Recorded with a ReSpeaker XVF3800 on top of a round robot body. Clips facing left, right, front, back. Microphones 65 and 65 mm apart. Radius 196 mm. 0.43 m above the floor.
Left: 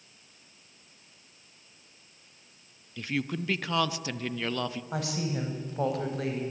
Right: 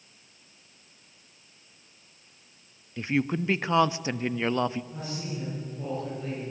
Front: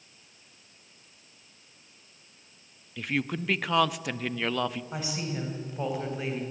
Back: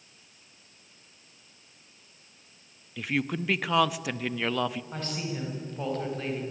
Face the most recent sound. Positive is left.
turn(degrees=80)